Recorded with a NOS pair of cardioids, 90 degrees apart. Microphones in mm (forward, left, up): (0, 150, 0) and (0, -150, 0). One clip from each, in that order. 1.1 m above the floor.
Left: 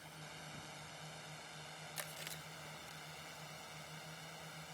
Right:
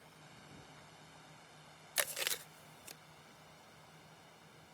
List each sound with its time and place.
0.0 s a drone: 50° left; by 4.8 s 70° left
2.0 s chewing: 50° right